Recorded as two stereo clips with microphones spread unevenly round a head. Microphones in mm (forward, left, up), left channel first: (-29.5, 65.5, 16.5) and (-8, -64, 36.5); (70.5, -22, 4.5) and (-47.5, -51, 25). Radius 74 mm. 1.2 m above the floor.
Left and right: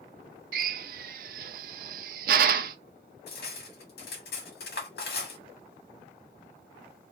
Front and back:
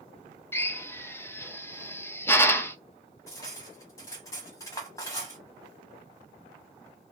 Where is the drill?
55° right, 0.5 m.